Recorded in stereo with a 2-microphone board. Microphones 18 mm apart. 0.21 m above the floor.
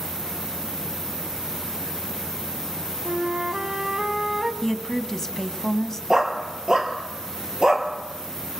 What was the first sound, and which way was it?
A flute, 20° right (ahead or behind).